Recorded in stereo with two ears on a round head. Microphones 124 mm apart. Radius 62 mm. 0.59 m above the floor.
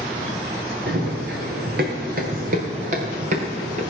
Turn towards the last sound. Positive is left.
turn(degrees=-50)  # may be behind; listen again after turning